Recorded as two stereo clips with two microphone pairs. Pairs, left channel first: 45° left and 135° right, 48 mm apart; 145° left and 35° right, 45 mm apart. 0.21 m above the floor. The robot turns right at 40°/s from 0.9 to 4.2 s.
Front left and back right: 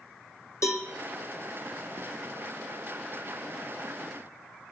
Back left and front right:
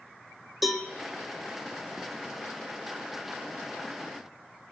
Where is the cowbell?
55° left, 1.8 m.